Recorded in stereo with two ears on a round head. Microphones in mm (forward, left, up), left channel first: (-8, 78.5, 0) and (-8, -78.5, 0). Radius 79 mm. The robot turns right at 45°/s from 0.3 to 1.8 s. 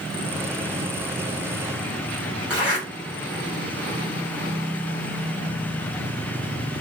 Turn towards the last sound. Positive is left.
turn(degrees=-10)  # may be behind; listen again after turning